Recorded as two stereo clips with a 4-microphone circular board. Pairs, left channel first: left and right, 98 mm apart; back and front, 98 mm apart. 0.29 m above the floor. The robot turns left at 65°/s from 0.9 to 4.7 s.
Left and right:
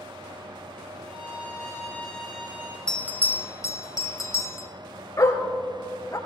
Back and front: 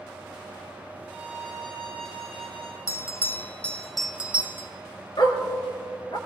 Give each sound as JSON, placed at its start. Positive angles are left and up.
{"t": 1.0, "sound": "a violin", "azimuth_deg": 80, "distance_m": 3.5}
{"t": 2.9, "sound": "a bell", "azimuth_deg": 160, "distance_m": 0.9}
{"t": 5.2, "sound": "a dog barking", "azimuth_deg": 145, "distance_m": 1.9}